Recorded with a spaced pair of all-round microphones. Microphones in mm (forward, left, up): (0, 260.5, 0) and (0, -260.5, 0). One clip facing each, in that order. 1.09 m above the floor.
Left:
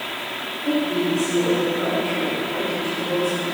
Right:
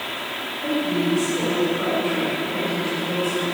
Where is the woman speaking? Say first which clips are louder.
Left 1 dB; 60° right (ahead or behind), 4 m.